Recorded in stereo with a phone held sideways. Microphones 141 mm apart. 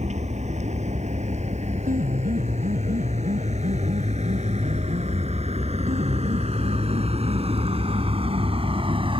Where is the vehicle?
55° right (ahead or behind); by 9.2 s 40° right (ahead or behind).